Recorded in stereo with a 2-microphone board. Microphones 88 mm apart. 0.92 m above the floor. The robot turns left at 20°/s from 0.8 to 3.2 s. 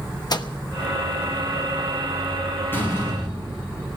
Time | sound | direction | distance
0.3 | a microwave | 55° left (ahead or behind) | 0.9 m
2.7 | a door slam | 25° left (ahead or behind) | 6 m